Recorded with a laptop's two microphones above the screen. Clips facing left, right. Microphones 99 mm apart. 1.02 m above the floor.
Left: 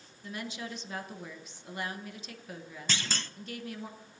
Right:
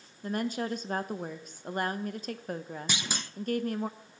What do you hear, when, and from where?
0.2 s a woman speaking: 45° right (ahead or behind), 0.6 m
2.9 s a clunk: 15° right (ahead or behind), 0.5 m